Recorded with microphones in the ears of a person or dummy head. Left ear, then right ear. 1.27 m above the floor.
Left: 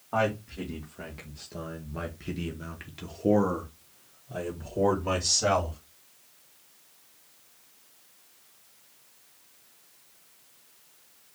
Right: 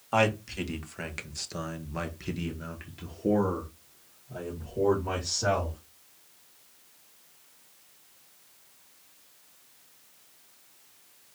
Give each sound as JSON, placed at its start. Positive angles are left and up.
{"t": 0.1, "sound": "a man speaking", "side_deg": -65, "distance_m": 1.8}